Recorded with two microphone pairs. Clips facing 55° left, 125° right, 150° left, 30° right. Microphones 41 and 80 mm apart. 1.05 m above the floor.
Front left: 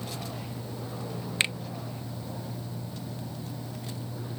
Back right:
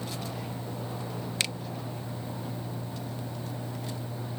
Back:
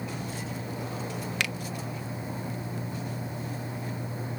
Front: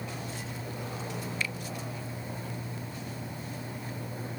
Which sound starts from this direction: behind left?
A finger snap, at 1.4 s.